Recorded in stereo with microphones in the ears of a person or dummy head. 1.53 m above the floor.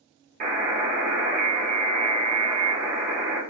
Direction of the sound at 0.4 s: 50° right (ahead or behind).